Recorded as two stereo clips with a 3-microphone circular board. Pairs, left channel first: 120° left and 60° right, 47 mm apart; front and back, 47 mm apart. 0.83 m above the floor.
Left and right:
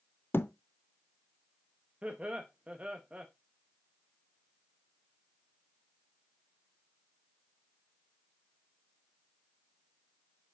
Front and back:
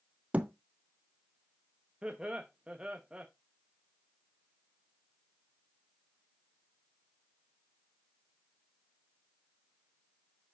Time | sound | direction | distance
0.3 | a thud | 130° left | 0.6 m
2.0 | laughter | 115° right | 0.8 m